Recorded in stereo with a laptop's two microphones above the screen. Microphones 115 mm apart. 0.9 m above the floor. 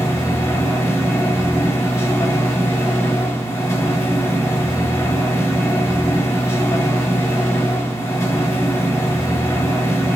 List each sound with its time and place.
0.0 s a machine running: 25° left (ahead or behind), 1.1 m